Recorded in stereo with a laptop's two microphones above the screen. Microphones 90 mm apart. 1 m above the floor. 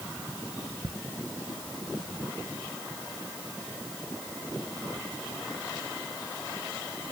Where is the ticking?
65° right (ahead or behind), 0.5 m.